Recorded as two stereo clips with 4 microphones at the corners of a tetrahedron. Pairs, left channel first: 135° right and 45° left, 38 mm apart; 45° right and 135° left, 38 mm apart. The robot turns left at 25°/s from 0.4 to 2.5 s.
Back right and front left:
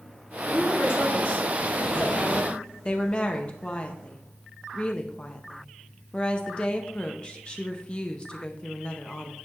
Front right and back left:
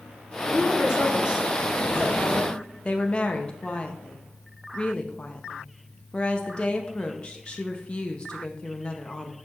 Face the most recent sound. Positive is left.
turn(degrees=-85)